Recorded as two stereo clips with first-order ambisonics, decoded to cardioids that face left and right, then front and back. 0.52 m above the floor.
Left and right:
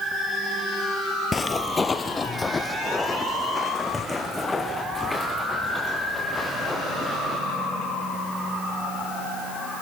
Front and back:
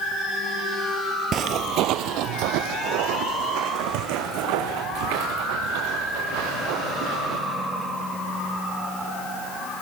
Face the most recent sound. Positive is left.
turn(degrees=175)